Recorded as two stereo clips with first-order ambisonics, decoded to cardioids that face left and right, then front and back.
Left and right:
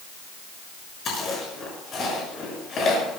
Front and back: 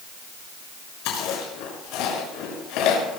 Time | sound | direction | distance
1.1 | chewing | 25° left | 6 m